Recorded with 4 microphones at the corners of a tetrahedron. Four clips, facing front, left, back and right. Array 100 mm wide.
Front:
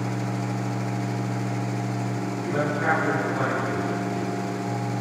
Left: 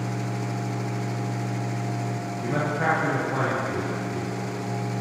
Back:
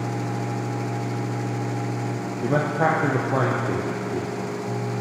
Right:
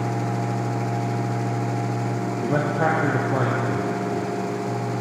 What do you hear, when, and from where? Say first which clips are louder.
2.4 s a man speaking: right 2 dB, back 4 dB; 150° right, 3 m